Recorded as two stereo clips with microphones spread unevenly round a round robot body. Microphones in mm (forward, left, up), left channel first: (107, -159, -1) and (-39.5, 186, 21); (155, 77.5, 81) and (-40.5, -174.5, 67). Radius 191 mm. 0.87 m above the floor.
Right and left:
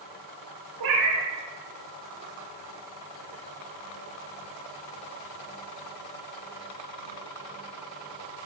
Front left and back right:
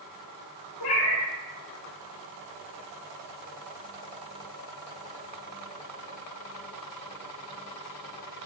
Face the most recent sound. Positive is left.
turn(degrees=85)